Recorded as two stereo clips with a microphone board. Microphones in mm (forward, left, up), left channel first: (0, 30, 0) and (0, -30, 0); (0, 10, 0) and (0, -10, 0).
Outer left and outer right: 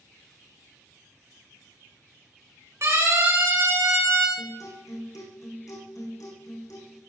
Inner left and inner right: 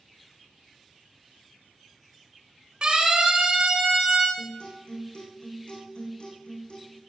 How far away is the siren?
About 9 m.